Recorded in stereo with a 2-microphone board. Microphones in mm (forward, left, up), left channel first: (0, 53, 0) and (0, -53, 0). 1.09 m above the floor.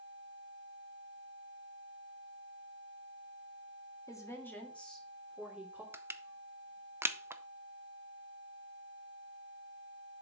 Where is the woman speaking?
30° left (ahead or behind), 2.0 m; by 5.8 s 15° right (ahead or behind), 2.5 m.